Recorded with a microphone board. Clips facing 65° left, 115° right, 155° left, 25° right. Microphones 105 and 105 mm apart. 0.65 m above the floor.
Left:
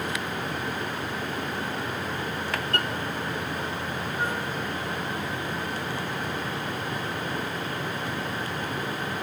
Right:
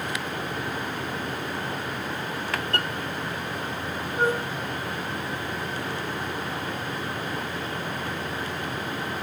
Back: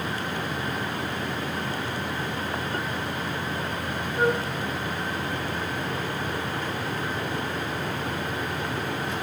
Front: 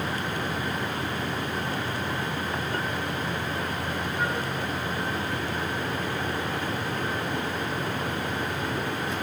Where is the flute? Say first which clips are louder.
Right 7 dB, back 8 dB; 155° right, 1.0 m.